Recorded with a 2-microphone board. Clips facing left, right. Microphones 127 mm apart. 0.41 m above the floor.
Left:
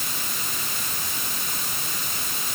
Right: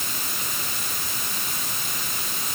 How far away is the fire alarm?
No fire alarm in this recording.